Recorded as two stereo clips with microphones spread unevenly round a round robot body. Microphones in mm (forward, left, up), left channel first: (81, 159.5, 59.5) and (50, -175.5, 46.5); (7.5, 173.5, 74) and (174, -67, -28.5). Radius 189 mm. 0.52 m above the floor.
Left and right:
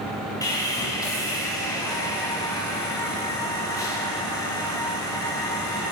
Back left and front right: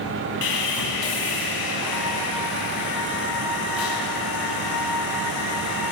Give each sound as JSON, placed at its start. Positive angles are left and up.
{"t": 0.4, "sound": "sawing", "azimuth_deg": 165, "distance_m": 4.0}